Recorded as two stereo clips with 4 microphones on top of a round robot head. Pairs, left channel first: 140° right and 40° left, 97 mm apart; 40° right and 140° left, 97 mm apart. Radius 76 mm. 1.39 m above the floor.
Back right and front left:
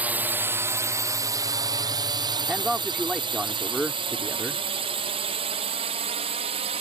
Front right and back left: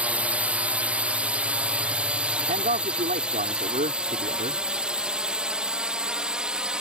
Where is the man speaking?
130° left.